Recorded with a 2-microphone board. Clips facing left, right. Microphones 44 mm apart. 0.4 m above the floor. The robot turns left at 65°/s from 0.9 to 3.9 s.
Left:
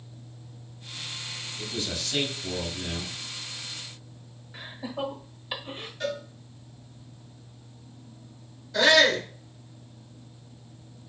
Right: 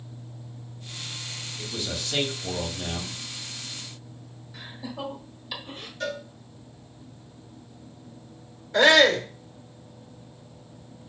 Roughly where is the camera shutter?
No camera shutter in this recording.